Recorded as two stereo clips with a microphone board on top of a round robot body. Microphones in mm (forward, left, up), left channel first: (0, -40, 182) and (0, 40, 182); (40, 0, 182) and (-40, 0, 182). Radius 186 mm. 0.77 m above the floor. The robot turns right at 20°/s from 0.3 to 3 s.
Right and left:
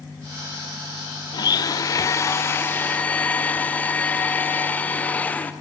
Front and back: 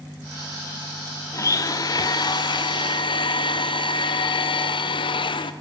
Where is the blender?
50° right, 0.6 m; by 5.5 s 20° right, 0.6 m.